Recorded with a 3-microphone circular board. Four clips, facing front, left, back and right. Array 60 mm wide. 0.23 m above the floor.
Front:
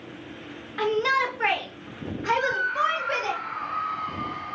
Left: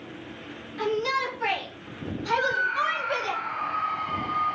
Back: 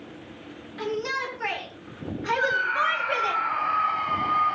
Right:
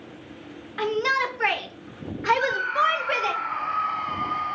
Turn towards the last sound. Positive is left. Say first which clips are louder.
# left 1 dB, back 2 dB
turn(degrees=-155)